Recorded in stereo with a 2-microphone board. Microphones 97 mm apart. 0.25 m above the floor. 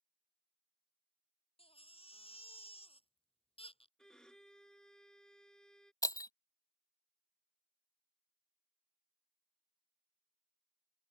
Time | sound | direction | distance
1.6 | a baby crying | 80° left | ?
4.0 | a violin | 10° left (ahead or behind) | ?
6.0 | breaking glass | 40° left (ahead or behind) | ?